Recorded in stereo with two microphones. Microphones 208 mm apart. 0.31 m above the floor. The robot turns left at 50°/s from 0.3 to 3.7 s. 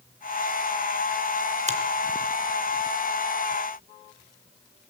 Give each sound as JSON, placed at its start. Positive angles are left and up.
{"t": 1.7, "sound": "a finger snap", "side_deg": -35, "distance_m": 2.0}